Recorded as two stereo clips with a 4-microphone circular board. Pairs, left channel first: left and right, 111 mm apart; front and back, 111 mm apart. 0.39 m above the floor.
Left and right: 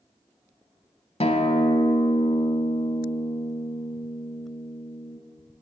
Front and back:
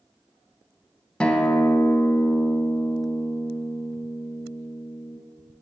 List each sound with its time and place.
1.2 s a guitar: 80° left, 0.8 m